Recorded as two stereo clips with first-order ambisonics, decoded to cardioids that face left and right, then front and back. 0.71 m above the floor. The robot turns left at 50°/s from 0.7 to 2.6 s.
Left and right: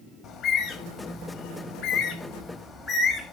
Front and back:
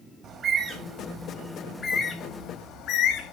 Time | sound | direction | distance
0.2 | a bird | 115° left | 1.3 m